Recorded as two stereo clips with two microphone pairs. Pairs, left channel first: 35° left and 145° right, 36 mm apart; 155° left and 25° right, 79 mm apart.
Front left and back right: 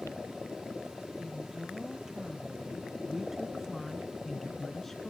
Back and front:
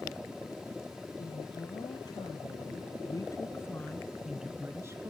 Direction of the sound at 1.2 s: 135° left.